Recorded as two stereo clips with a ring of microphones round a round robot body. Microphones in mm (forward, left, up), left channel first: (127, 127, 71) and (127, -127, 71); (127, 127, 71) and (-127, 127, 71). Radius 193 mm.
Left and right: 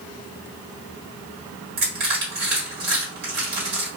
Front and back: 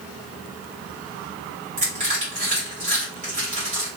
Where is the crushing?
125° right, 1.3 m.